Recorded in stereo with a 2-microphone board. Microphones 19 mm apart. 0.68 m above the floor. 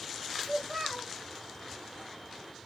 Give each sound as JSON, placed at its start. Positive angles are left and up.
{"t": 0.4, "sound": "a child speaking", "side_deg": -10, "distance_m": 3.5}